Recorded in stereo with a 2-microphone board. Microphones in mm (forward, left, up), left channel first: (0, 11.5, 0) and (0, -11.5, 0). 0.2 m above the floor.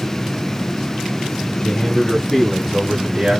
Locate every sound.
1.6 s a man speaking: 35° left (ahead or behind), 1.5 m; by 3.4 s 25° right (ahead or behind), 1.1 m